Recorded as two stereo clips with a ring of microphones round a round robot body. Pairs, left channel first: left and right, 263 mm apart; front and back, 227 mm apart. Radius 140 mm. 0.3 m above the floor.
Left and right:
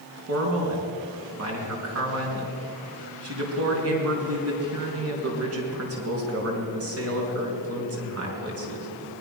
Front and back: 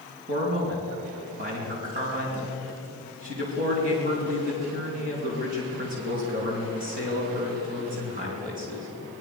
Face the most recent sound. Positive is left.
turn(degrees=-125)